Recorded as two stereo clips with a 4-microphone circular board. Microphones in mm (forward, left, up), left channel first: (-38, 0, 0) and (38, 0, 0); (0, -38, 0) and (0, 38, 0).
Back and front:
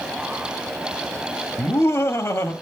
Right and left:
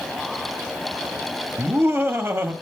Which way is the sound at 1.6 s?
150° left.